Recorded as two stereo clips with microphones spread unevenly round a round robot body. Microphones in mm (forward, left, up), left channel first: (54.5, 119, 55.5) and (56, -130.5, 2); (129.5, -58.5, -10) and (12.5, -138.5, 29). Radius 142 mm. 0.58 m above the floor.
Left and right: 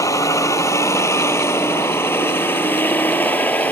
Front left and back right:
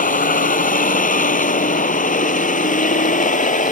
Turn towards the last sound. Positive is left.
turn(degrees=5)